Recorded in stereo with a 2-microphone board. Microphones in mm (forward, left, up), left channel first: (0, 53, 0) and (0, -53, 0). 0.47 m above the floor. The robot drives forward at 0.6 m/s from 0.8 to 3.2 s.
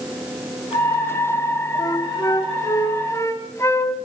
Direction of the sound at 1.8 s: 40° left (ahead or behind).